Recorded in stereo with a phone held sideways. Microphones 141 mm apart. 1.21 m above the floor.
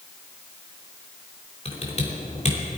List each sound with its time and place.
1.6 s typing on a keyboard: 50° left (ahead or behind), 3 m